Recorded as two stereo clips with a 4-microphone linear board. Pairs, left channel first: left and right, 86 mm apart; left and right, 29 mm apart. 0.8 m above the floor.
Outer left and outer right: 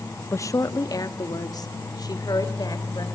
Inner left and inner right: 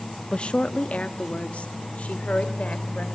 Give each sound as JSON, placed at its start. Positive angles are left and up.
{"t": 0.3, "sound": "a woman speaking", "side_deg": 35, "distance_m": 0.5}